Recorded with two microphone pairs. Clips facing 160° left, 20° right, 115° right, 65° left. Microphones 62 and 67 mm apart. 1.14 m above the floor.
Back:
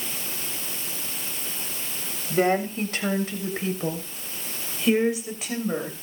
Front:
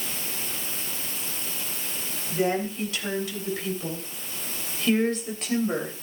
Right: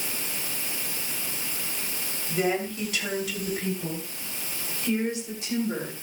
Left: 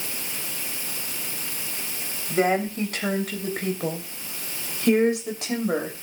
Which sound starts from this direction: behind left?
A woman speaking, at 2.3 s.